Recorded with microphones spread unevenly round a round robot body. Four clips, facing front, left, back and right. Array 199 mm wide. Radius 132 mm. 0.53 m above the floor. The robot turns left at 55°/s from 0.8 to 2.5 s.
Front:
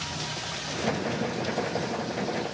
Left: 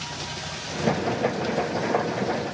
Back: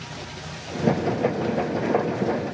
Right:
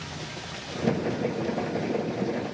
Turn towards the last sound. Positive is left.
No sound to turn to.